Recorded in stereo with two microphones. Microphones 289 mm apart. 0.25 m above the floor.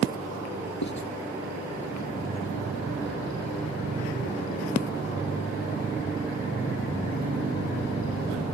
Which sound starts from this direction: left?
Writing, at 0.8 s.